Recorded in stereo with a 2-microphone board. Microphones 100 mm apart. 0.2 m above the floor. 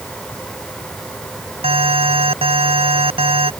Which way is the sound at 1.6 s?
70° right (ahead or behind).